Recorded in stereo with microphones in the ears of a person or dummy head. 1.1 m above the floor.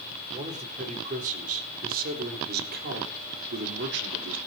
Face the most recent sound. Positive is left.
turn(degrees=-65)  # may be behind; listen again after turning